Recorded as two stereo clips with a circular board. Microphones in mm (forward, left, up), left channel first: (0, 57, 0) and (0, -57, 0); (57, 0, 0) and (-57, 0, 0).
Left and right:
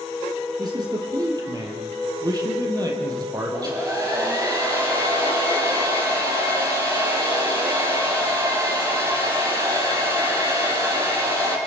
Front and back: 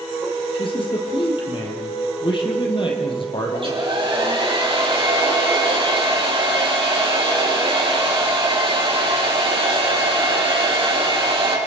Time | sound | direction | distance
0.6 | a man speaking | 40° right | 3.5 m
3.5 | a hair dryer | 145° right | 5 m